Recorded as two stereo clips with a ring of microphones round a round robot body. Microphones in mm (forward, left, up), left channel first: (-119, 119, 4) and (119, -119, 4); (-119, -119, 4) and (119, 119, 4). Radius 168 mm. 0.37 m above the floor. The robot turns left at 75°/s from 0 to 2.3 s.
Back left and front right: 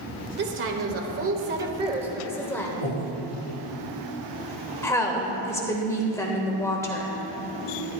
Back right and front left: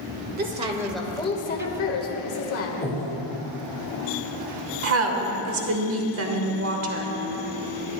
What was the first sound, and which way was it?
A woman speaking, straight ahead.